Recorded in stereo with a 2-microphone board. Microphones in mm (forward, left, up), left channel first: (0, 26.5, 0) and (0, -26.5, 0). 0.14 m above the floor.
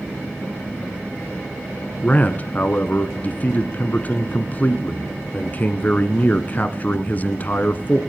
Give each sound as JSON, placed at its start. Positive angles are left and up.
{"t": 2.0, "sound": "a man speaking", "side_deg": 35, "distance_m": 1.4}